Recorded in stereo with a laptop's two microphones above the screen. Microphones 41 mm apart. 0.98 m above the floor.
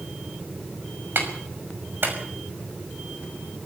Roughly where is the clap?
Right.